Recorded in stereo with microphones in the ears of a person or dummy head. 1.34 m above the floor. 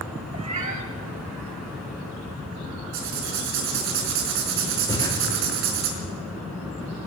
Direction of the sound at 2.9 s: 75° right (ahead or behind).